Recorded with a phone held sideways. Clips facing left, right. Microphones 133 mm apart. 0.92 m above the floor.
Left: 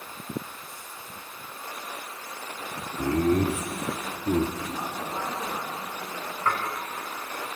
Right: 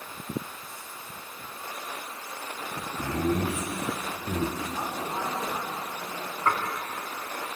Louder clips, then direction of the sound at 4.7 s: Even; 15° right (ahead or behind).